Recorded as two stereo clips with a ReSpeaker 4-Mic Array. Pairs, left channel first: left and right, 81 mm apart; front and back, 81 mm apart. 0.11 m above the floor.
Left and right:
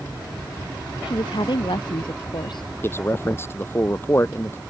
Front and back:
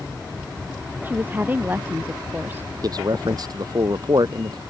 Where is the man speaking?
150° left.